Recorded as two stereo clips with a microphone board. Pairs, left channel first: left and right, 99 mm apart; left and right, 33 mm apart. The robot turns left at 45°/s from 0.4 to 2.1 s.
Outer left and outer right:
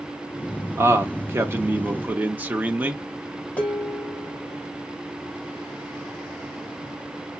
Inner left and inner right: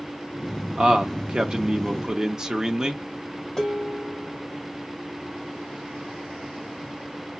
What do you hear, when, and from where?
0.8 s a man speaking: 25° right (ahead or behind), 0.9 m; by 3.0 s 20° right (ahead or behind), 0.9 m
3.6 s dishes clattering: 15° left (ahead or behind), 1.3 m